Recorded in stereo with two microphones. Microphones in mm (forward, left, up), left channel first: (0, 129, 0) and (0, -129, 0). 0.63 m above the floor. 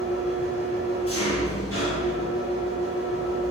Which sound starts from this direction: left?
An engine running, at 0.0 s.